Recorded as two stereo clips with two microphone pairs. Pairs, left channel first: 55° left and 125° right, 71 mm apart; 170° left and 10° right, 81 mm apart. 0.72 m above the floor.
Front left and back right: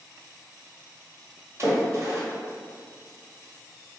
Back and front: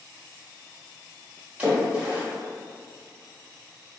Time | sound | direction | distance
1.6 | a splash | 75° right | 1.1 m